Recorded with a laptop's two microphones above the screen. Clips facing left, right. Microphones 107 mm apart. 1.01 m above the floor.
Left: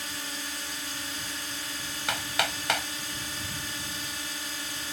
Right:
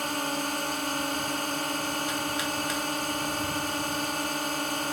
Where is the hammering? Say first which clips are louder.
Right 1 dB; 85° left.